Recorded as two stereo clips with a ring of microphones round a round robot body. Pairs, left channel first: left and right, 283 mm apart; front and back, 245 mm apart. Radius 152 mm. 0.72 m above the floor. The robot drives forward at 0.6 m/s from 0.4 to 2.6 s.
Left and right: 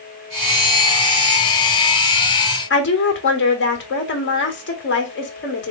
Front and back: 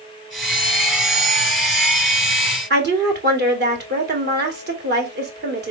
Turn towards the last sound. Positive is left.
turn(degrees=135)